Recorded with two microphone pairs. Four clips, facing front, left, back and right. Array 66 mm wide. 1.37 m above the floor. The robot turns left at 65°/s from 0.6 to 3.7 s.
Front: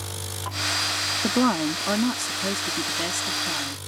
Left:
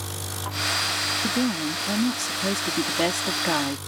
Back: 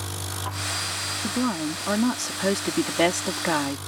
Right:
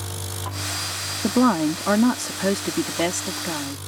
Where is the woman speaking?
55° right; by 3.8 s 145° left.